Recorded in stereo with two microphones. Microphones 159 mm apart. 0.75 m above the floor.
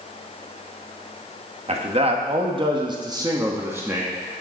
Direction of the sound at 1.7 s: 40° right (ahead or behind).